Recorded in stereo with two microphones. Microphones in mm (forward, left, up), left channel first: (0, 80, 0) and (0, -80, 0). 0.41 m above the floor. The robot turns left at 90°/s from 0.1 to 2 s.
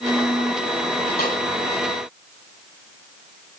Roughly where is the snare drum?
Left.